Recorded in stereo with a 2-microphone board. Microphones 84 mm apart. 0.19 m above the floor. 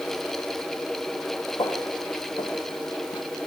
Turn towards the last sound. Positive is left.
turn(degrees=75)  # may be behind; listen again after turning